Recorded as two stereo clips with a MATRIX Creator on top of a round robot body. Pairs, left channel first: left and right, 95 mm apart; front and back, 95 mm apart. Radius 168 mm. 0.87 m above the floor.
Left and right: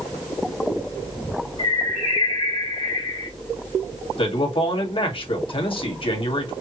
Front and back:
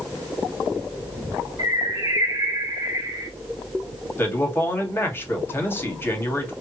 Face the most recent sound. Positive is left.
turn(degrees=65)